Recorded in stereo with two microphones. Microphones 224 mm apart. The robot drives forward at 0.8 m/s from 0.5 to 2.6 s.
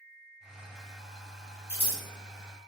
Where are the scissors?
35° left (ahead or behind), 1.9 m; by 2.0 s 40° left (ahead or behind), 1.7 m.